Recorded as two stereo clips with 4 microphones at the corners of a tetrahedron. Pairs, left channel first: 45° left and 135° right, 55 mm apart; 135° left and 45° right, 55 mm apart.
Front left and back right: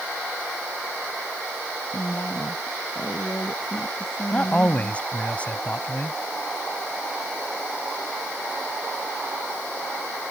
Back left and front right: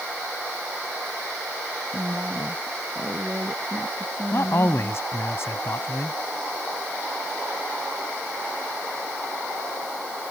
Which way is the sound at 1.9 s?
10° left.